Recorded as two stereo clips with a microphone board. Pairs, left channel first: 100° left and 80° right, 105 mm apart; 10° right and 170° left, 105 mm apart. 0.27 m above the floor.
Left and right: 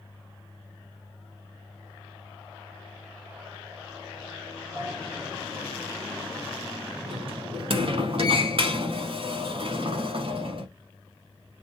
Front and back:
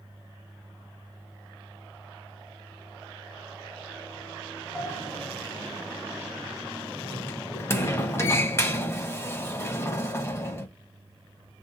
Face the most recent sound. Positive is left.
turn(degrees=-75)